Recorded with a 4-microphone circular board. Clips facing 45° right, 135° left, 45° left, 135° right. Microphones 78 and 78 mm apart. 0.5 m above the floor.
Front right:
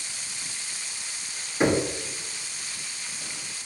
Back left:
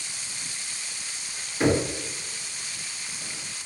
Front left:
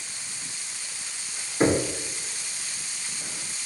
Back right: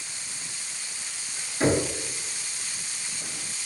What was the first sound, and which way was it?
Knocking, 15° left.